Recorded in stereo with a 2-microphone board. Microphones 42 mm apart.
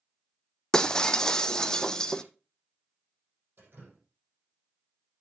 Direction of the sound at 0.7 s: 15° left (ahead or behind).